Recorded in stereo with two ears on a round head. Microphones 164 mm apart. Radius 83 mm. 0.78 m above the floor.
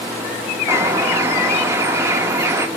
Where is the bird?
15° right (ahead or behind), 0.5 m.